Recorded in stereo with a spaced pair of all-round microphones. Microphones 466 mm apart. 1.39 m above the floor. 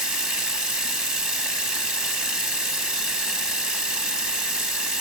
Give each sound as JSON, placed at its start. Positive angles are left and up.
{"t": 0.0, "sound": "running water", "side_deg": -60}